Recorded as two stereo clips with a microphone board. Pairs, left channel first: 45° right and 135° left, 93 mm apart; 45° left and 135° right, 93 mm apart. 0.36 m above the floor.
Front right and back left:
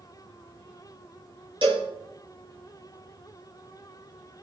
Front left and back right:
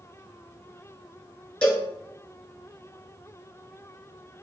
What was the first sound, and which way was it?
A cowbell, 125° left.